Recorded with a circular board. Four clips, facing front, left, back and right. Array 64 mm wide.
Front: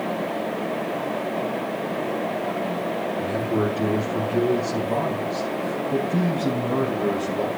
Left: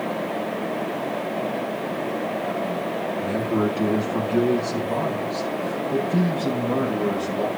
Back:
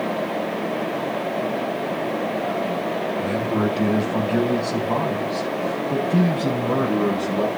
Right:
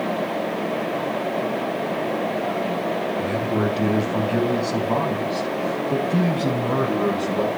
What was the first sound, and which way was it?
A man speaking, 140° right.